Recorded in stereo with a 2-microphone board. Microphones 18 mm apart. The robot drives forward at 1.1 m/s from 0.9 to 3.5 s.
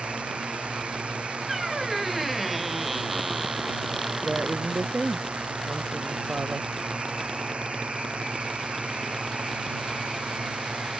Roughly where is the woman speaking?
Right.